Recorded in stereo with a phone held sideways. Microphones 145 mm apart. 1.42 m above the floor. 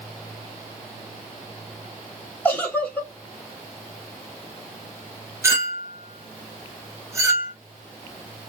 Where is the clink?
20° right (ahead or behind), 1.3 m.